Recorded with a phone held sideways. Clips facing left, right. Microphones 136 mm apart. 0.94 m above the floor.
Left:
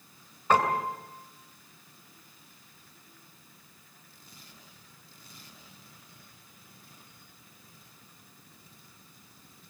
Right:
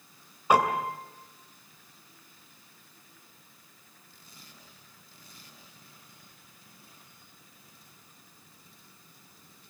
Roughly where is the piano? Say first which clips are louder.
Right 1 dB; centre.